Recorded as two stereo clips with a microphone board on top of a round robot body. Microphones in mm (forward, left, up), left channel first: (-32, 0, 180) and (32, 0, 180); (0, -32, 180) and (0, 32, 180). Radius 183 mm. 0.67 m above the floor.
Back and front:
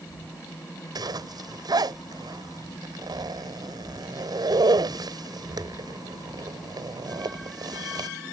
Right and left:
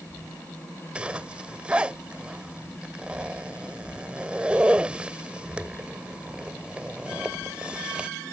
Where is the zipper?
15° left.